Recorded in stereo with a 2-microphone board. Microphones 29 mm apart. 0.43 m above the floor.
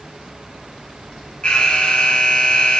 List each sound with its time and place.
1.4 s an alarm: 40° left (ahead or behind), 1.0 m